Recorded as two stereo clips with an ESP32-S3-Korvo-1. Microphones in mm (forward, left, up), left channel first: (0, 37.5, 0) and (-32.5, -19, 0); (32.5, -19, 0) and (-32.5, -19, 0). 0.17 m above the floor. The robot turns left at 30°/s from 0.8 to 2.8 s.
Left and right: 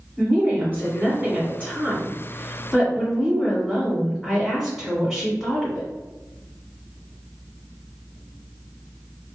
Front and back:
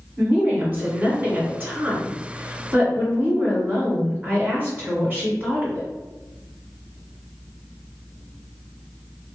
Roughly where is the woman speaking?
Behind right.